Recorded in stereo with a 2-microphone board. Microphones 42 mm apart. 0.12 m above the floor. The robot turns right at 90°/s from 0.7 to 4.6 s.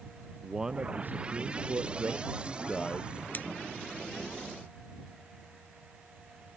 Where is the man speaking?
165° right; by 3.2 s 55° left.